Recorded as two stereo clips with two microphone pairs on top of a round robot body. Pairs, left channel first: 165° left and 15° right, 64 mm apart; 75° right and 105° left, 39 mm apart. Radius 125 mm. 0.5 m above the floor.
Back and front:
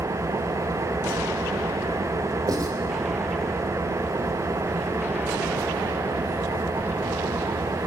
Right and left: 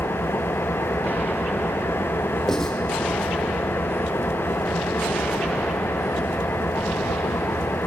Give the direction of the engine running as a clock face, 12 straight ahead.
2 o'clock.